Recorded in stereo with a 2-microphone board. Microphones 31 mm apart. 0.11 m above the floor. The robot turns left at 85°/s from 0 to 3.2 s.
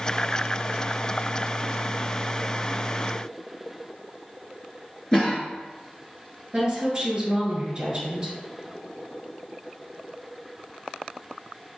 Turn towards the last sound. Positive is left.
turn(degrees=-25)  # may be behind; listen again after turning